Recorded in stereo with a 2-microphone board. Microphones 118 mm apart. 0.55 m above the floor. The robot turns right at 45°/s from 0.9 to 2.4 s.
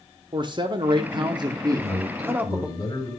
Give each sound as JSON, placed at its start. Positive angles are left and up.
{"t": 0.3, "sound": "a man speaking", "azimuth_deg": -90, "distance_m": 1.0}
{"t": 1.7, "sound": "a man speaking", "azimuth_deg": 5, "distance_m": 7.5}